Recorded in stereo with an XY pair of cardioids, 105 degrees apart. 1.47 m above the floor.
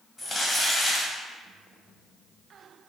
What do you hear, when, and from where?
0.2 s crumpling: 15° left, 1.4 m